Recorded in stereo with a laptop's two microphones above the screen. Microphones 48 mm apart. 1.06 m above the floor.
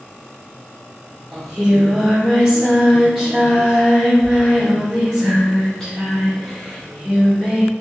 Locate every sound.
1.3 s singing: 10° left (ahead or behind), 1.6 m